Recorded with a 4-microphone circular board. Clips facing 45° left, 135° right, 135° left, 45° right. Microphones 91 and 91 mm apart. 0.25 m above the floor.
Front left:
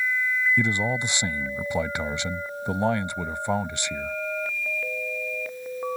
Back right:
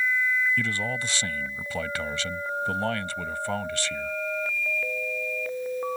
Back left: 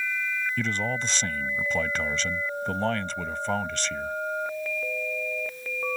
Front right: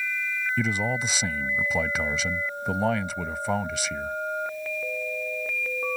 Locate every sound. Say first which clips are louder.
0.6 s a man speaking: front left 4 dB, front right 3 dB; 25° left